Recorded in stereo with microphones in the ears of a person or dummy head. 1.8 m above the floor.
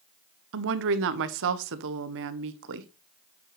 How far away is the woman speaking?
About 0.9 m.